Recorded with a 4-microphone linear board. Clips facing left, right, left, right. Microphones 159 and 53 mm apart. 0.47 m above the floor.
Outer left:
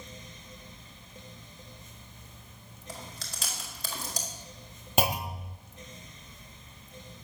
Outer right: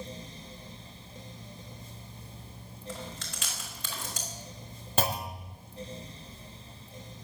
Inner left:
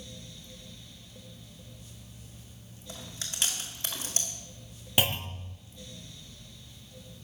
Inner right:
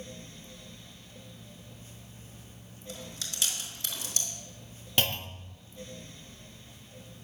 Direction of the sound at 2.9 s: 35° left (ahead or behind).